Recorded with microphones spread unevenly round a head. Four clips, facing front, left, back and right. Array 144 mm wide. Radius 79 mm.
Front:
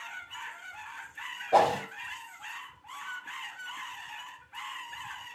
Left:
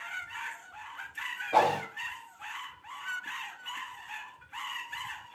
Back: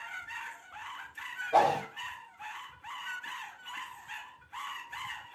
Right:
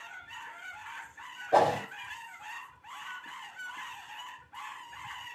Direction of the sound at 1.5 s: 45° right.